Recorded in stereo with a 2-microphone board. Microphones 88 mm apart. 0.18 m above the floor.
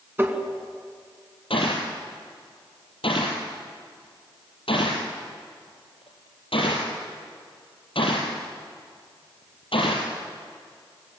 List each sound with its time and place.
0.2 s tapping: 25° right (ahead or behind), 2.5 m
1.5 s a gunshot: 85° left, 5.5 m